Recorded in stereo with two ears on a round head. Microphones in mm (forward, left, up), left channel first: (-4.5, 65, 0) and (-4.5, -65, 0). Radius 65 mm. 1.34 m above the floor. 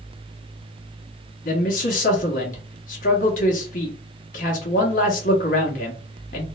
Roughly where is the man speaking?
Left.